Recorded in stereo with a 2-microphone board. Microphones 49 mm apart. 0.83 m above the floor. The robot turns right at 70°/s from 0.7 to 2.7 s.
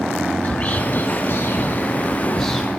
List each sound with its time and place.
0.4 s whispering: 35° left (ahead or behind), 1.3 m; by 2.8 s 5° right (ahead or behind), 1.3 m